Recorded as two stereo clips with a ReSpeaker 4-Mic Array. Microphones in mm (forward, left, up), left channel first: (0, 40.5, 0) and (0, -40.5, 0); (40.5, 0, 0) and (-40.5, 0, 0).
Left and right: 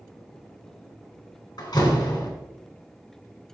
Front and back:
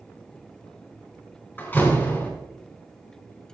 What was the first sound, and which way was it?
A door slam, 65° left.